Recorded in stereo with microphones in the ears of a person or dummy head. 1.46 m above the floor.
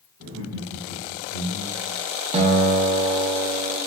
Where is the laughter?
65° right (ahead or behind), 1.3 m; by 2.0 s 90° right, 2 m.